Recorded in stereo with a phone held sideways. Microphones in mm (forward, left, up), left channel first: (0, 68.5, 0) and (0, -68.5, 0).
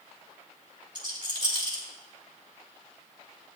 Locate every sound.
0.9 s a rattle: 35° right (ahead or behind), 2.5 m